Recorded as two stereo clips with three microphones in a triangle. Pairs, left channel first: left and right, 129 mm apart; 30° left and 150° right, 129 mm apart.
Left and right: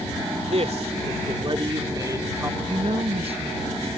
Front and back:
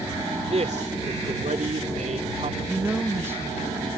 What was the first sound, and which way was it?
A man speaking, 120° right.